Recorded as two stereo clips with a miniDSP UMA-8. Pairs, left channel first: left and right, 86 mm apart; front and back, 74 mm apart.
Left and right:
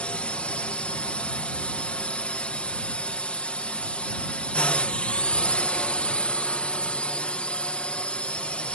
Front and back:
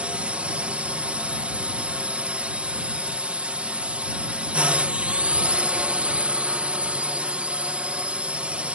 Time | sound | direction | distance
0.0 | a drone | 140° left | ?